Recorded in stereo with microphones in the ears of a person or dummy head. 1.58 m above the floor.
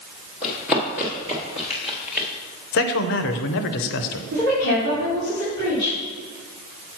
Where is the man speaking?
60° left (ahead or behind), 0.7 m.